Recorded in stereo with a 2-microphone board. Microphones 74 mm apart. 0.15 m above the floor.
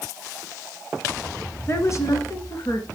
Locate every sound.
1.7 s a woman speaking: 35° left (ahead or behind), 1.9 m; by 2.9 s 55° left (ahead or behind), 2.5 m